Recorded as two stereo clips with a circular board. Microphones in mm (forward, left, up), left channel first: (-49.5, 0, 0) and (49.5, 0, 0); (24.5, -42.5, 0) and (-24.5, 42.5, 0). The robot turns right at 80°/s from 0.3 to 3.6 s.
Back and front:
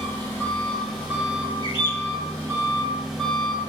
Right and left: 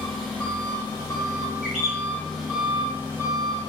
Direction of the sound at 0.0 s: 145° right.